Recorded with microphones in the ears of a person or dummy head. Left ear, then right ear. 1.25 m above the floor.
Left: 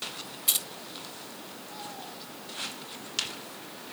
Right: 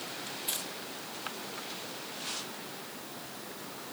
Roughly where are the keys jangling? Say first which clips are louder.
Left 9 dB; left.